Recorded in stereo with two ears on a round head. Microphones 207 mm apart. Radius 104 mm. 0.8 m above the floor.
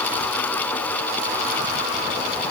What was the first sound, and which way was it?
Only background noise.